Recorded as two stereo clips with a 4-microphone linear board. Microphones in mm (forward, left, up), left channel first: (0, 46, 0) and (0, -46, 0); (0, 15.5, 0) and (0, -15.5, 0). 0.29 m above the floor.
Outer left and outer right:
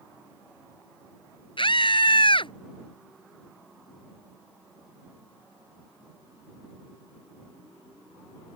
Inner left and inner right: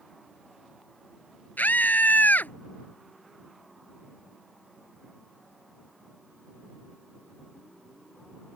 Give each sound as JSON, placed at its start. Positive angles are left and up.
{"t": 1.6, "sound": "a scream", "side_deg": 65}